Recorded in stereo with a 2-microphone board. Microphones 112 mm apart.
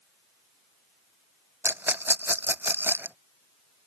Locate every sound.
1.6 s a rattle: 20° right (ahead or behind)